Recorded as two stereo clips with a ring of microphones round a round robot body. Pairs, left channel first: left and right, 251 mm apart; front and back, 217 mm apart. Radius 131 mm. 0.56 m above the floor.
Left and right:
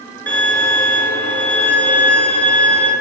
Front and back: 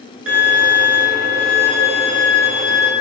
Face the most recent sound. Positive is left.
turn(degrees=175)